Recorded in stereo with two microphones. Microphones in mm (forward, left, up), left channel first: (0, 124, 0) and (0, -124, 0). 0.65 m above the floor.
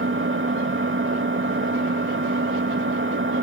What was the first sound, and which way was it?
An engine running, 55° right (ahead or behind).